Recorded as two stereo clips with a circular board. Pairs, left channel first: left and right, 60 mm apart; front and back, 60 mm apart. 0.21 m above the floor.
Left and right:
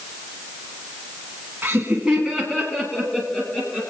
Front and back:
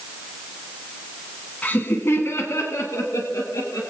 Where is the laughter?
55° right, 1.3 m; by 3.9 s 30° left, 3.5 m.